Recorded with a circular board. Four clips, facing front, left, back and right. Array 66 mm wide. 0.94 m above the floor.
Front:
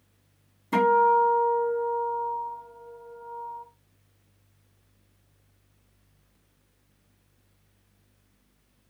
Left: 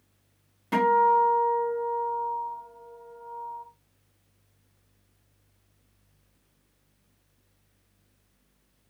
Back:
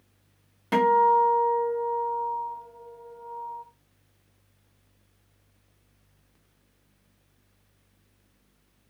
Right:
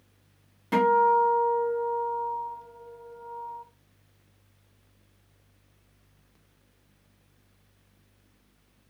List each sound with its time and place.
0.7 s a guitar: 175° right, 1.7 m